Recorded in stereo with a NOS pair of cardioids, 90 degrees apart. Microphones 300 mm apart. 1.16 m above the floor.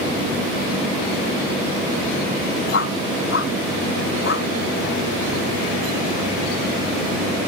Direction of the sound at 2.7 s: 45° left.